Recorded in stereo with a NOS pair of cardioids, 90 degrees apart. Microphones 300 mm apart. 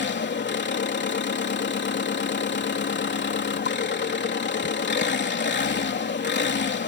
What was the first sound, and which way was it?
An engine running, 35° left.